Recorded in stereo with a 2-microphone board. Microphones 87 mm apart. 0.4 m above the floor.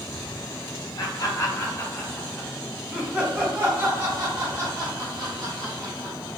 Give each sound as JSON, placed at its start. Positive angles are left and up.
{"t": 1.0, "sound": "laughter", "side_deg": 50, "distance_m": 1.4}